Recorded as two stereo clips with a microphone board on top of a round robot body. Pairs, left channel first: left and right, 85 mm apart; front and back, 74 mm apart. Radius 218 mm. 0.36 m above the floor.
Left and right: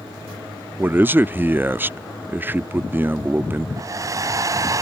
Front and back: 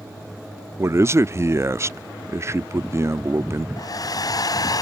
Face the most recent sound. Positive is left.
turn(degrees=-40)